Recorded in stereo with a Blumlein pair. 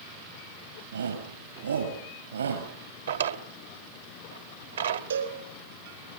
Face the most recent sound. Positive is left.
turn(degrees=-70)